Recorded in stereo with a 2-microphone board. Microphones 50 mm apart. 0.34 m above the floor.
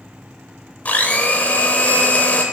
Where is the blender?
30° left (ahead or behind), 0.9 m.